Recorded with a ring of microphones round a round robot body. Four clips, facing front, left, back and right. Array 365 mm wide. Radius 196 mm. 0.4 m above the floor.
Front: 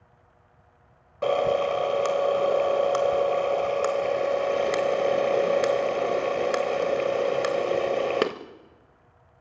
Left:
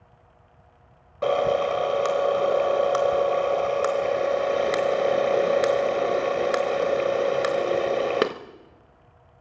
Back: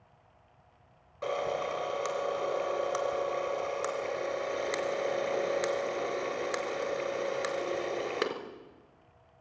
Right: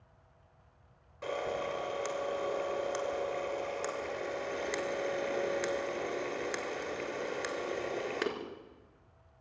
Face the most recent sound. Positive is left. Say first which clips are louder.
# left 14 dB, front 9 dB
turn(degrees=55)